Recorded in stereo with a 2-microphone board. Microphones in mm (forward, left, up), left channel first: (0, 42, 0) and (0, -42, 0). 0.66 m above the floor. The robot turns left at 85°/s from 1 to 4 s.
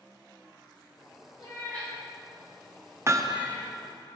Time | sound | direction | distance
1.4 | a cat meowing | 50° left (ahead or behind) | 3 m
3.1 | hammering | 45° right | 0.5 m